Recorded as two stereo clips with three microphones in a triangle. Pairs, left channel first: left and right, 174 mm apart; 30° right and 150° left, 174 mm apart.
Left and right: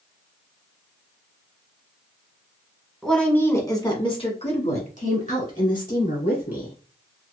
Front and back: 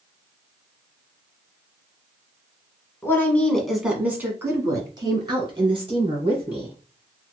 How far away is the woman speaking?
About 1.1 m.